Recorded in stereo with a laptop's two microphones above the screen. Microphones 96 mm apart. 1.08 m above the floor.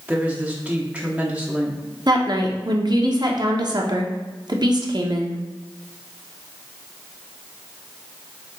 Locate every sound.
0.1 s a woman speaking: 15° right (ahead or behind), 0.7 m
2.1 s a woman speaking: 50° right (ahead or behind), 0.6 m